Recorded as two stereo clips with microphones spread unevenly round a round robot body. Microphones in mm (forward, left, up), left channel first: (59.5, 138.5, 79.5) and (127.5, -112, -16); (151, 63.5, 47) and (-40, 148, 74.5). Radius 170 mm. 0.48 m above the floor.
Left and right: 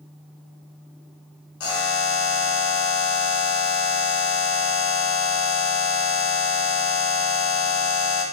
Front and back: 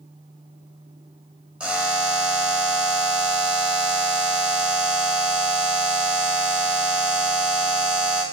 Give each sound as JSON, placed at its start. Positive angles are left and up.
{"t": 1.6, "sound": "a buzzer", "azimuth_deg": 70, "distance_m": 1.0}